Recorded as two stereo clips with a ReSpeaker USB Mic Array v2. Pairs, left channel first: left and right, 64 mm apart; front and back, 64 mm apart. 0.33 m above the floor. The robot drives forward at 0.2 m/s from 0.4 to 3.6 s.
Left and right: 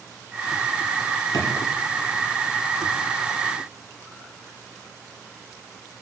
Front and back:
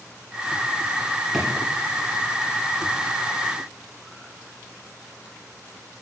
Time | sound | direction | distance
1.3 | a drawer | 95° left | 5 m